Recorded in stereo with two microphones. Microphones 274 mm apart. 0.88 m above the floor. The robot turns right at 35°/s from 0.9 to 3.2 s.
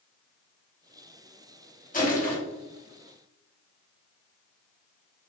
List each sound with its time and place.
1.9 s crushing: 25° left (ahead or behind), 1.0 m; by 2.4 s 30° left (ahead or behind), 1.0 m